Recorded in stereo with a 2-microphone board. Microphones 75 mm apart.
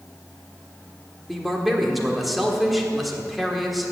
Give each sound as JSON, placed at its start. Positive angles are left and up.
{"t": 1.3, "sound": "a man speaking", "side_deg": 0, "distance_m": 1.5}